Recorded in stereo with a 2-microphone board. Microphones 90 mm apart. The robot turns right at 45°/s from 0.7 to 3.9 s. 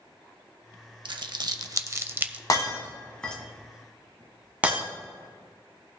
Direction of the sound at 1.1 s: 60° right (ahead or behind).